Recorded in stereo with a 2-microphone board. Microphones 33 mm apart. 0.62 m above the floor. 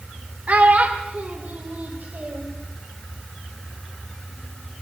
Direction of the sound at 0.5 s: 50° right (ahead or behind).